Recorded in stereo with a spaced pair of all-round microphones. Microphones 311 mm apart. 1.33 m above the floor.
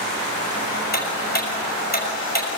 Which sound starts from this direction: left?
Ticking, at 0.9 s.